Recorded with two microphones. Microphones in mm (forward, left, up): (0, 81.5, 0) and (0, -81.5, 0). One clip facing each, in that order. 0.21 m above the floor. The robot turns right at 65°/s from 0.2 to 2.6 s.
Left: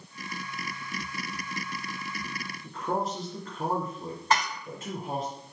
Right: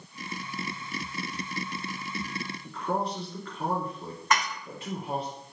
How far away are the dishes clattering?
About 0.9 m.